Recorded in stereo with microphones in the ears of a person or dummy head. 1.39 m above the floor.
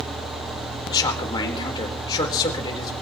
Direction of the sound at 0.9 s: 20° left (ahead or behind).